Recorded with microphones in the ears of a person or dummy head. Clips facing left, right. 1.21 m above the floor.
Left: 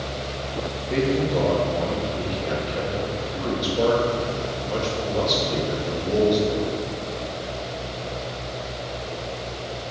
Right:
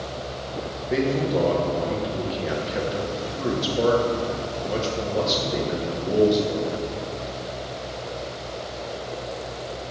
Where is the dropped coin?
No dropped coin in this recording.